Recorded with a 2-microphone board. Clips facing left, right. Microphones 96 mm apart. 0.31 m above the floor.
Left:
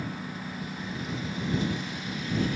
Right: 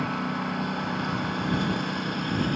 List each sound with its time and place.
0.0 s a lawn mower: 65° right (ahead or behind); by 2.6 s 55° right (ahead or behind)